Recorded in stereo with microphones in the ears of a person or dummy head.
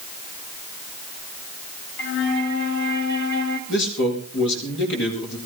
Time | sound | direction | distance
2.0 | a flute | 65° left (ahead or behind) | 2.5 m
3.7 | a man speaking | 65° left (ahead or behind) | 5.5 m